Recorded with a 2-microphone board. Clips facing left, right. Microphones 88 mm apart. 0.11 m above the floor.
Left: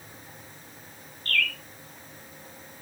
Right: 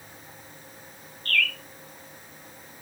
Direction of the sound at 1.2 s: 5° left (ahead or behind).